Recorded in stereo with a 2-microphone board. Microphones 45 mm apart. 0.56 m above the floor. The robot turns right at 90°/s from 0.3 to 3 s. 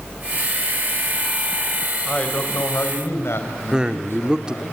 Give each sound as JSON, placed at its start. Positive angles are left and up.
{"t": 2.0, "sound": "a man speaking", "azimuth_deg": 15, "distance_m": 3.5}
{"t": 3.7, "sound": "a man speaking", "side_deg": -20, "distance_m": 1.5}